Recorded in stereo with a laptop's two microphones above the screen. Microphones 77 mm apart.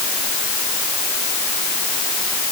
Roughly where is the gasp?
I don't hear a gasp.